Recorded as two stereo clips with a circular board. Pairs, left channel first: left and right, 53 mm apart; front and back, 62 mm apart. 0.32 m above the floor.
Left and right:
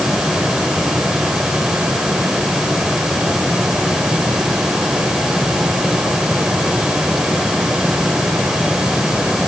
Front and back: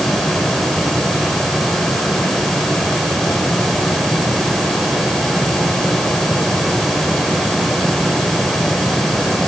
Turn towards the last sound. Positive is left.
No sound to turn to.